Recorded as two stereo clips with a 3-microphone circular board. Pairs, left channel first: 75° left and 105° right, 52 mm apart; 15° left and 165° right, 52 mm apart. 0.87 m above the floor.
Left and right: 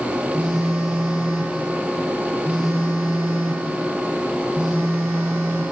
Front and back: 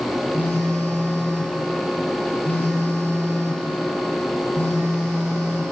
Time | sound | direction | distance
0.3 | a phone buzzing | 35° right | 2 m